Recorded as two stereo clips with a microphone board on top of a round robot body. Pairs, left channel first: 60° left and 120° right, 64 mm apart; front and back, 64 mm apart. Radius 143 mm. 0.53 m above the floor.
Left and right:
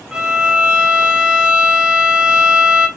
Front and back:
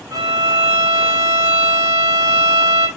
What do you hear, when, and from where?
0.1 s a violin: 165° left, 0.5 m